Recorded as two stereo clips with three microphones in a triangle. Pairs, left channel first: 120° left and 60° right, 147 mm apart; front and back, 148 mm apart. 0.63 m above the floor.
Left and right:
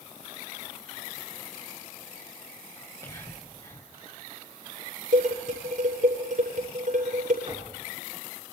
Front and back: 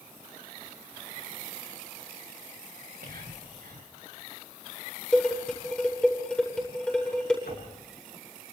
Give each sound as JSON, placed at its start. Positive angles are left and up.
{"t": 2.8, "sound": "whispering", "azimuth_deg": 180, "distance_m": 3.0}
{"t": 5.1, "sound": "dishes clattering", "azimuth_deg": -85, "distance_m": 10.0}
{"t": 7.5, "sound": "knocking", "azimuth_deg": -15, "distance_m": 7.0}